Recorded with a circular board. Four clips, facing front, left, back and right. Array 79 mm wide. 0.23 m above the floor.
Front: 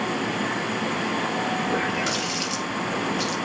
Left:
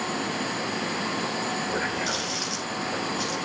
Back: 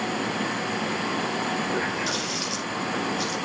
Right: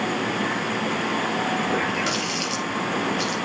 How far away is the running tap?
About 3.5 m.